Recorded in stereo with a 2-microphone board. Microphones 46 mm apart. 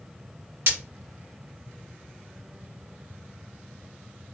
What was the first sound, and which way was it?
Breaking glass, 65° right (ahead or behind).